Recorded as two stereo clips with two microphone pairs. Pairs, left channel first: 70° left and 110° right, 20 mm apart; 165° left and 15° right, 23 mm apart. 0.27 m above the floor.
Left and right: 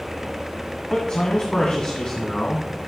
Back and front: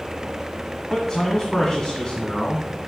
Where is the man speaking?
110° left, 1.9 m.